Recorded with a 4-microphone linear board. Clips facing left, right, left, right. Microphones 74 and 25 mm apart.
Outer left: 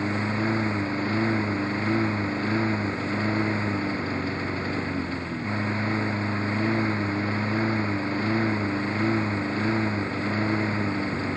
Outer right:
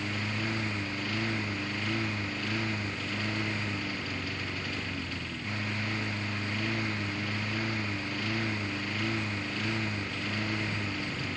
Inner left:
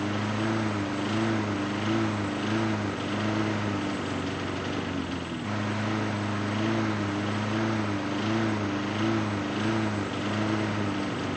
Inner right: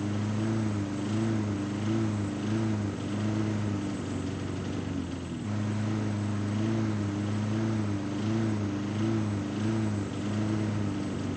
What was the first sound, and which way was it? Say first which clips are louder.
A lawn mower: outer left 8 dB, inner left 3 dB; 35° left (ahead or behind).